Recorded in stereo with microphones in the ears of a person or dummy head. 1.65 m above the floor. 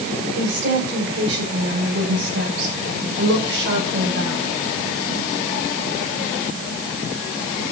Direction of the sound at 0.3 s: 70° right (ahead or behind).